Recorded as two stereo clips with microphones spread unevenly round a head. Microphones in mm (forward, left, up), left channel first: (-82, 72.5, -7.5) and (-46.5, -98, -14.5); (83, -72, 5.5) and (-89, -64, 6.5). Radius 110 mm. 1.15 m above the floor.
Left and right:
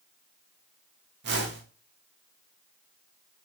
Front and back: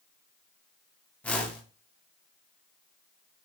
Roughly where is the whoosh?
Right.